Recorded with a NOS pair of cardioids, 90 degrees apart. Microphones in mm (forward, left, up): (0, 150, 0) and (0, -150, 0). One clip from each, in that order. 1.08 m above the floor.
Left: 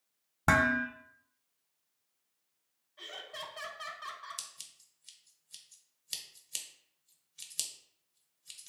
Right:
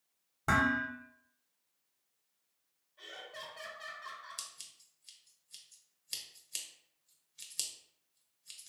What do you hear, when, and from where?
0.5 s dishes clattering: 40° left, 0.6 m
3.0 s laughter: 35° left, 0.7 m
4.4 s scissors: 10° left, 0.6 m